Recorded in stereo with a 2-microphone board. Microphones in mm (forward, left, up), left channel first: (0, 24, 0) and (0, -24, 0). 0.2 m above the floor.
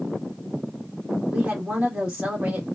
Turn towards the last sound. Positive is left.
turn(degrees=-25)  # may be behind; listen again after turning